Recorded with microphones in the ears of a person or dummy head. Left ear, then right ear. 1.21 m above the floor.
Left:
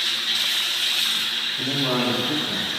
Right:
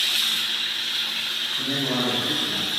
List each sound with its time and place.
1.6 s a man speaking: 50° left (ahead or behind), 1.7 m; by 2.7 s 45° left (ahead or behind), 2.5 m